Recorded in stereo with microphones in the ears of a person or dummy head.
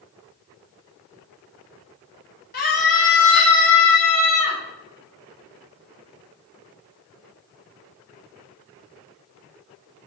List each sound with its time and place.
2.5 s a scream: 45° left (ahead or behind), 1.0 m; by 4.6 s 80° left, 1.9 m